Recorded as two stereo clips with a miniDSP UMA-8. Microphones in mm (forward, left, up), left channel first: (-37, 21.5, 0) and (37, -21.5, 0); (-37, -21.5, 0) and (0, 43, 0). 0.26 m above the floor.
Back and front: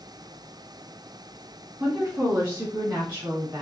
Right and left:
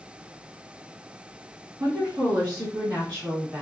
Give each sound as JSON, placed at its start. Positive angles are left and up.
{"t": 1.8, "sound": "a woman speaking", "azimuth_deg": 40, "distance_m": 2.5}